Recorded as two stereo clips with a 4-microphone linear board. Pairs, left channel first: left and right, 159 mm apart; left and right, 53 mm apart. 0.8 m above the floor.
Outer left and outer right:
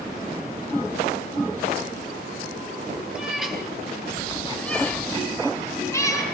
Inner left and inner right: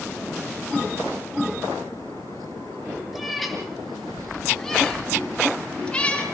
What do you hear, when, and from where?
3.1 s a cat meowing: 5° right (ahead or behind), 7 m; by 6.2 s 20° left (ahead or behind), 5.5 m